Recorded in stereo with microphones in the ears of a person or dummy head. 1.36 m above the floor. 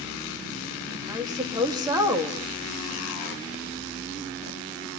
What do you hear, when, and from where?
1.1 s a woman speaking: 15° right (ahead or behind), 3 m